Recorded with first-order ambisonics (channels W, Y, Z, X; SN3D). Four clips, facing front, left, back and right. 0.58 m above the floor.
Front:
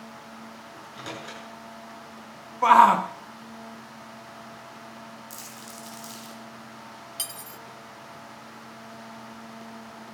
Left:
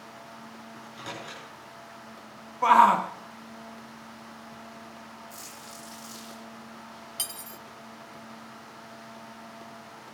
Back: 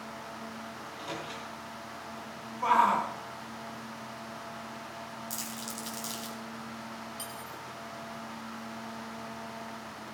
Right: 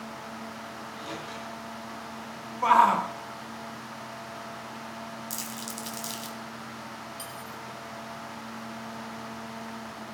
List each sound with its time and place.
0.7 s a microwave: 20° left, 8 m
2.6 s a shout: 10° left, 0.7 m
5.3 s crumpling: 105° right, 3.5 m
7.2 s cutlery clinking: 45° left, 0.6 m